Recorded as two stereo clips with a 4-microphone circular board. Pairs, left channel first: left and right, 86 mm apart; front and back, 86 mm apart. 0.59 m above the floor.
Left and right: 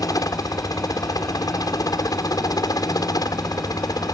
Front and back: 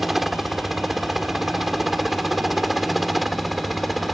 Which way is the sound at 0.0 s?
95° left.